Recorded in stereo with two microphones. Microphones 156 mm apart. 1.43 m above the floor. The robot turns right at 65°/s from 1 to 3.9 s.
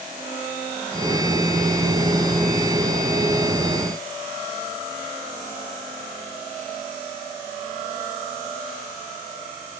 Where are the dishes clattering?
No dishes clattering in this recording.